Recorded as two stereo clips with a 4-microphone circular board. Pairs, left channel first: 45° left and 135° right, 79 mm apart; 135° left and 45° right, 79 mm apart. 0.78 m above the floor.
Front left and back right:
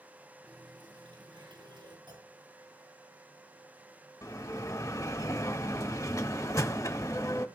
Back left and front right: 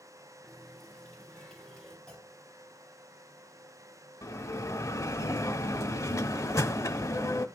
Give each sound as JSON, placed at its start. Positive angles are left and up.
{"t": 0.4, "sound": "a running tap", "azimuth_deg": -140, "distance_m": 7.0}
{"t": 2.1, "sound": "a clunk", "azimuth_deg": -145, "distance_m": 4.0}
{"t": 4.2, "sound": "a bell", "azimuth_deg": 90, "distance_m": 1.2}